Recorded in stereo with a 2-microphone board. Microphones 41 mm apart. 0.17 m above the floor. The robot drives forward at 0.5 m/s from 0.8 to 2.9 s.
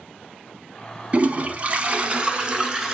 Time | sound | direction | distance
1.1 | a toilet flushing | 30° right (ahead or behind) | 0.6 m